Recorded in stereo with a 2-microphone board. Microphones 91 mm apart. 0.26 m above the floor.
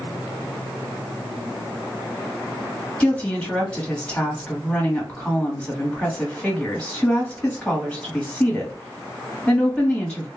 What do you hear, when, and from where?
3.0 s a woman speaking: 10° left (ahead or behind), 1.2 m